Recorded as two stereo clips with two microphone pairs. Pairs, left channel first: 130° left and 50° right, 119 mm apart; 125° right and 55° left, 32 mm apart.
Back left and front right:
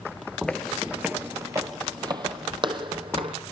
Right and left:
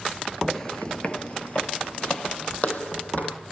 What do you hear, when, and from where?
0.5 s footsteps: 160° right, 0.7 m; by 3.4 s 90° right, 2 m